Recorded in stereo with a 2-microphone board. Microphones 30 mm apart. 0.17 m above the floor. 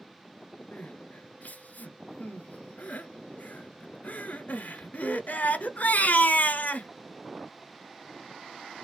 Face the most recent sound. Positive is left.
turn(degrees=60)  # may be behind; listen again after turning